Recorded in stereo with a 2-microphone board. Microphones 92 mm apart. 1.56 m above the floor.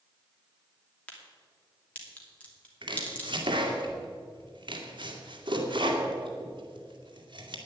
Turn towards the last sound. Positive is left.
turn(degrees=-55)  # may be behind; listen again after turning